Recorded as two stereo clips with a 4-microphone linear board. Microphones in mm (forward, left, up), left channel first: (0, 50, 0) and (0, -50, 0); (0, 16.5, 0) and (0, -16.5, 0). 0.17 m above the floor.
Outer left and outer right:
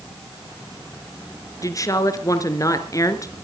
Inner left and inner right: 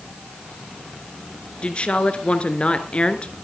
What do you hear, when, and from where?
1.6 s a woman speaking: 35° left (ahead or behind), 2 m